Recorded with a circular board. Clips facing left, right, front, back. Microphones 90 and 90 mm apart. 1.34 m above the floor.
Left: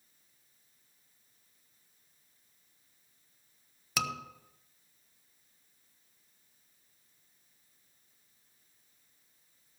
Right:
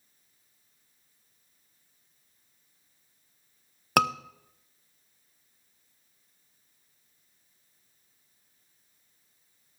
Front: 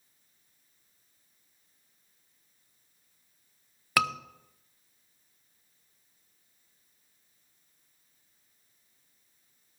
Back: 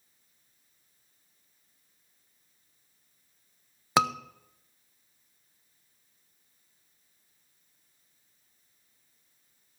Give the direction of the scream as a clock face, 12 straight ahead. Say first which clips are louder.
Right 11 dB, back 3 dB; 4 o'clock.